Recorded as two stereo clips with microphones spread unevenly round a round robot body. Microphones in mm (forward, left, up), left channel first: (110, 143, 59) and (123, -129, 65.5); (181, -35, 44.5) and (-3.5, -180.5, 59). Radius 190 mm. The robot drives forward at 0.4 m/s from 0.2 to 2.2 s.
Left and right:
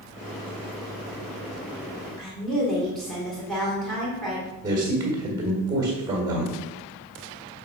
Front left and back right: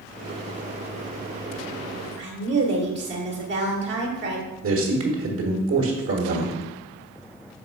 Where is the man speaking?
165° right, 1.4 m.